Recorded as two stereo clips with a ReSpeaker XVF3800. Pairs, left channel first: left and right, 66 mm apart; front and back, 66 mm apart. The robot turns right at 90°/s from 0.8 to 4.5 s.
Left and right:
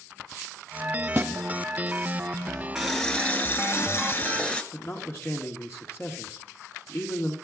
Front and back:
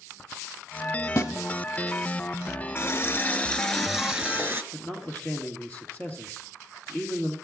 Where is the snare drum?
30° right, 1.2 m; by 1.3 s 15° right, 1.2 m.